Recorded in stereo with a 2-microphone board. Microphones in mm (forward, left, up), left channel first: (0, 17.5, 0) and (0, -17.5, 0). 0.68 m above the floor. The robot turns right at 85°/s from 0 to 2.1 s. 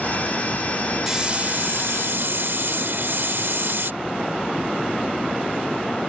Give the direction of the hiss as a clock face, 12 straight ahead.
6 o'clock.